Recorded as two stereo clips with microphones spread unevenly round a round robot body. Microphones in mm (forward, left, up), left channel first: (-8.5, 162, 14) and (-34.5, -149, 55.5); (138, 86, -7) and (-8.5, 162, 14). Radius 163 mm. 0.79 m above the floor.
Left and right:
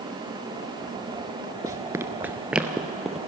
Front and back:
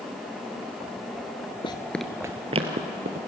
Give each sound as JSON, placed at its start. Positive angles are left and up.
{"t": 1.6, "sound": "running footsteps", "azimuth_deg": -50, "distance_m": 0.8}